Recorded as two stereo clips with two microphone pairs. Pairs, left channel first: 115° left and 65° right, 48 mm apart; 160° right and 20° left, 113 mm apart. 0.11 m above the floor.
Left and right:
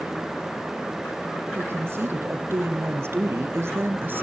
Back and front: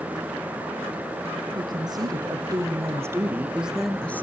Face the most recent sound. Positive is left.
turn(degrees=-95)